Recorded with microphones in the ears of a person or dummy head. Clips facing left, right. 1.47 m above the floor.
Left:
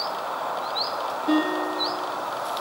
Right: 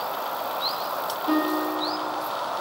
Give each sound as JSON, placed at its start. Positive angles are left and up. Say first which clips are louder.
{"t": 1.3, "sound": "a guitar", "louder": "left 1 dB", "side_deg": 10, "distance_m": 1.2}